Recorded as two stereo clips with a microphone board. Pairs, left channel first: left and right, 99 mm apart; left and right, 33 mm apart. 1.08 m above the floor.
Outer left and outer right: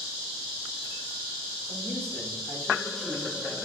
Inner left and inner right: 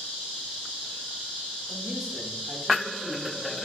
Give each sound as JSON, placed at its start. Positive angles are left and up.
{"t": 1.7, "sound": "a man speaking", "side_deg": 10, "distance_m": 3.5}